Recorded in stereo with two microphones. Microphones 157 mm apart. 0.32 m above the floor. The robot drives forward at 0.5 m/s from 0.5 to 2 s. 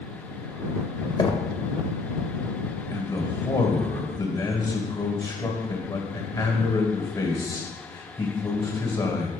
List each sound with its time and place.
1.2 s knocking: 30° left (ahead or behind), 0.6 m; by 1.5 s 25° left (ahead or behind), 0.6 m
2.9 s a man speaking: 30° left (ahead or behind), 1.4 m